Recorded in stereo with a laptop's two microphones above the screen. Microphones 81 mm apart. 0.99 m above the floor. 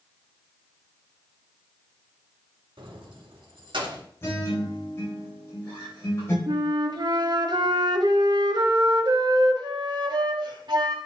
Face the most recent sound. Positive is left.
turn(degrees=-60)  # may be behind; listen again after turning